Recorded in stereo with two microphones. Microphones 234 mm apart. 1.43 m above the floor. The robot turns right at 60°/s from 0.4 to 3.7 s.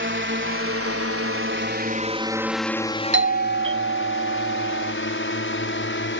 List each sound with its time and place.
0.0 s a drone: 55° right (ahead or behind); by 6.2 s 55° left (ahead or behind)
3.1 s a doorbell: 115° right; by 4.9 s 80° right